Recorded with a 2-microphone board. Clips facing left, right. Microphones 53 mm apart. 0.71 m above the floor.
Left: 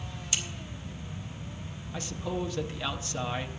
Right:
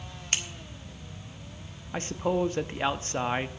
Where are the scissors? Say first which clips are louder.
Right 3 dB; 50° right (ahead or behind), 1.4 m.